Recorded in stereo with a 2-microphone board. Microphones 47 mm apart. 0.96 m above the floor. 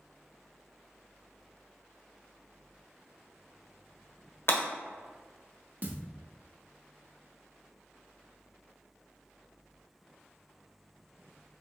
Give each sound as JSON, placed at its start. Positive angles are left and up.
{"t": 4.5, "sound": "breaking glass", "side_deg": 60, "distance_m": 1.2}
{"t": 5.8, "sound": "a thud", "side_deg": -40, "distance_m": 0.6}